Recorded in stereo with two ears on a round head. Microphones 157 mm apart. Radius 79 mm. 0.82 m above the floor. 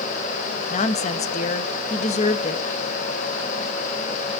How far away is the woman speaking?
About 0.9 m.